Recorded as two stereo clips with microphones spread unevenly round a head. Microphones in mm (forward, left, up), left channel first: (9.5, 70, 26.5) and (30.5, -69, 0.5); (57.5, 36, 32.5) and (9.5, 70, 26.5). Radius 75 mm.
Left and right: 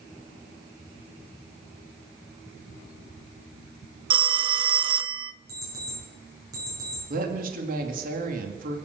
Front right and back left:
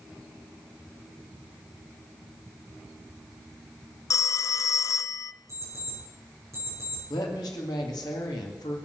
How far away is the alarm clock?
About 7.5 m.